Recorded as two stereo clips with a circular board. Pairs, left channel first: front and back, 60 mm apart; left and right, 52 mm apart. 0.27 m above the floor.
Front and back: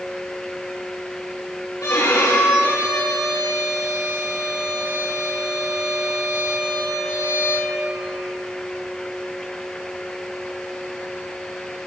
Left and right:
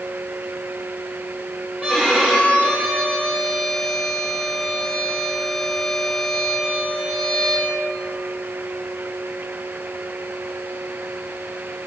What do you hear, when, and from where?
1.8 s a violin: 10° right, 5.5 m